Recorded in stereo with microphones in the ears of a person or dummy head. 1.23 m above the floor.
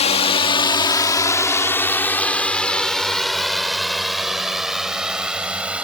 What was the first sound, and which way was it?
A drone, 40° left (ahead or behind).